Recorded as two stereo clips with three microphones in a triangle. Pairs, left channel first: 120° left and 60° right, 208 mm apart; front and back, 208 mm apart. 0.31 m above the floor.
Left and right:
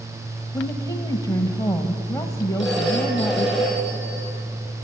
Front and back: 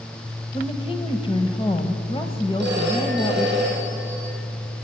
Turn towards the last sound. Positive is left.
turn(degrees=-145)